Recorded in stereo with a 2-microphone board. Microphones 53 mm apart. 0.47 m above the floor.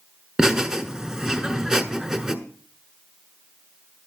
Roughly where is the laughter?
Centre.